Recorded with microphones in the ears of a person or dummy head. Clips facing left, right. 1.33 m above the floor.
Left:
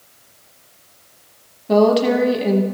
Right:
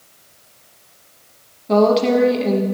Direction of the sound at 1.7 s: 10° left (ahead or behind).